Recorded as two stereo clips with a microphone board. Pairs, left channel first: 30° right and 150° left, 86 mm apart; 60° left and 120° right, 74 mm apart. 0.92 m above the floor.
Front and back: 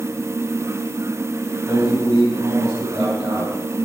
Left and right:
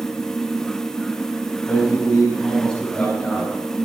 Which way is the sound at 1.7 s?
130° left.